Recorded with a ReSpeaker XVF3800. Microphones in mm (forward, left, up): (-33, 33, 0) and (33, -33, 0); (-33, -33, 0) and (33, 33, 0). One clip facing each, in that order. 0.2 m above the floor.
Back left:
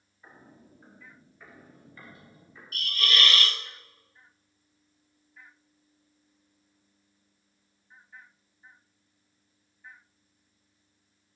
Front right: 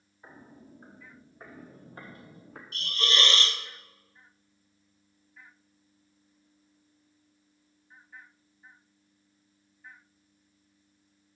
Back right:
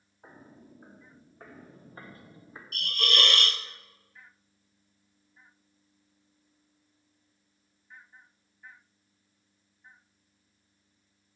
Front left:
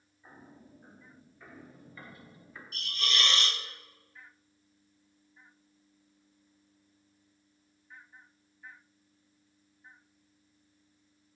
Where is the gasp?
I don't hear a gasp.